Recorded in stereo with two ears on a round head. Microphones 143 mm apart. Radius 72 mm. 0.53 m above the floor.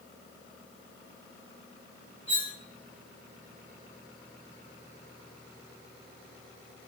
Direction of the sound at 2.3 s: 10° right (ahead or behind).